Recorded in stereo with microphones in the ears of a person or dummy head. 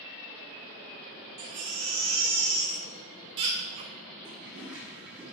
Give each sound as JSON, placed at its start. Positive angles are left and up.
{"t": 1.4, "sound": "a baby crying", "side_deg": -20, "distance_m": 0.6}
{"t": 4.2, "sound": "a toilet flushing", "side_deg": 0, "distance_m": 2.0}